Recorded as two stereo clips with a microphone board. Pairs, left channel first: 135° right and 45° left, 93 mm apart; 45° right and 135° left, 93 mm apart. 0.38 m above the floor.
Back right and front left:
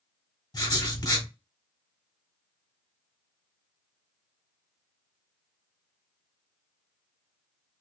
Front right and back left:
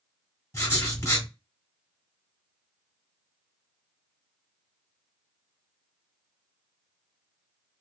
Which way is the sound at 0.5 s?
100° right.